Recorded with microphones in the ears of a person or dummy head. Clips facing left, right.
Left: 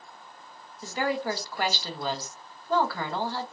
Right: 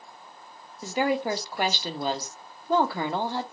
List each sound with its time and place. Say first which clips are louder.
0.8 s a woman speaking: right 3 dB; 20° right (ahead or behind), 0.6 m